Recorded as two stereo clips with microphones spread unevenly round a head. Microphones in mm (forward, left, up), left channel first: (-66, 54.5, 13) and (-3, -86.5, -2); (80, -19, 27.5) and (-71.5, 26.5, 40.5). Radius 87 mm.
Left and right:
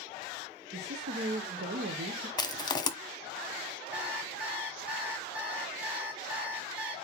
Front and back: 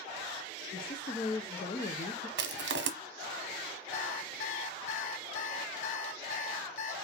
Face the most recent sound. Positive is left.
turn(degrees=20)